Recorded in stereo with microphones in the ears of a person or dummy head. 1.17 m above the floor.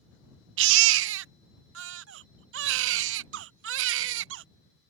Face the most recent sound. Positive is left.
turn(degrees=-70)  # may be behind; listen again after turning